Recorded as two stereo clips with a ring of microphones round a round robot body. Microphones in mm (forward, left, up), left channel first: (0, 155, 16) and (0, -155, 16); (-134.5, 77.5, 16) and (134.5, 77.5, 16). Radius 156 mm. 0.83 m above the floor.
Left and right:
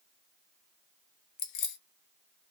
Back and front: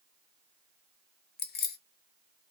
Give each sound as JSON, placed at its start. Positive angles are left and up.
{"t": 1.4, "sound": "keys jangling", "azimuth_deg": 125, "distance_m": 0.6}